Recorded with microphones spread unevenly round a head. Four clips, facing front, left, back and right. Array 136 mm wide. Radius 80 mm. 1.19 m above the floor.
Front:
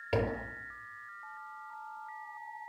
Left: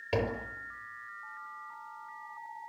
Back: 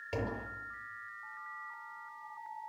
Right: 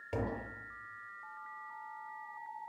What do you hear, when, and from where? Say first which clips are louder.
0.1 s tapping: left 6 dB, front 5 dB; 65° left, 6 m